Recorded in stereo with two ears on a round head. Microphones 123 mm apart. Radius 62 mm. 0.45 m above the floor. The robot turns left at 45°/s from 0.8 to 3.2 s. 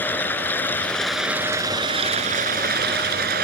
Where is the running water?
15° left; by 3.5 s 95° right.